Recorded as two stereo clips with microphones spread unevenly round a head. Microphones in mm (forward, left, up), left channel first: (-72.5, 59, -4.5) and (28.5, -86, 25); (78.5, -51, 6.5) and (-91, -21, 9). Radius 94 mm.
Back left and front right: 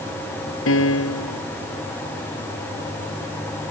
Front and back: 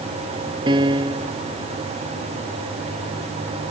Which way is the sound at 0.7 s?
100° left.